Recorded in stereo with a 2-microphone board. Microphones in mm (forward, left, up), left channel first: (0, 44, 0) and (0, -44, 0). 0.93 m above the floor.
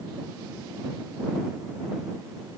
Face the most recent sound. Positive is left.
No sound to turn to.